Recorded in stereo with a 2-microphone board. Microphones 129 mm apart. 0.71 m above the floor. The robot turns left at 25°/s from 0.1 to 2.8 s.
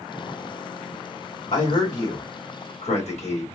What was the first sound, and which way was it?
A man speaking, 95° left.